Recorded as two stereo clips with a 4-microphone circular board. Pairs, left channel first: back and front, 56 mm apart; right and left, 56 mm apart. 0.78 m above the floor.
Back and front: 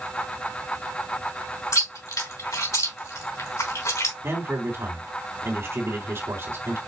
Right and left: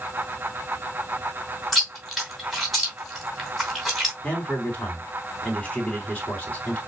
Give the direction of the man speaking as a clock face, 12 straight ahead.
1 o'clock.